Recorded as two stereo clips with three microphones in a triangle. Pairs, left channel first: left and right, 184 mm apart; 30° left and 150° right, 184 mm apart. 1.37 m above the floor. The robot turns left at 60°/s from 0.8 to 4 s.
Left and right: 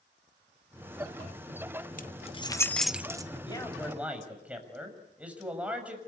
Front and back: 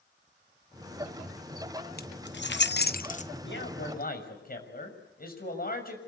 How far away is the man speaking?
About 6.5 m.